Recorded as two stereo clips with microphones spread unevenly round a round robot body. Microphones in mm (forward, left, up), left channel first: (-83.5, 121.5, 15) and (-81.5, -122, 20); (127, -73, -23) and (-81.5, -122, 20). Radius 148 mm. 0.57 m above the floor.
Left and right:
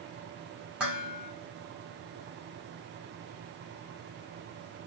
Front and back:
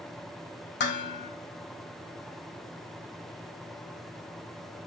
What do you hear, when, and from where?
0.8 s dishes clattering: 5° right, 0.8 m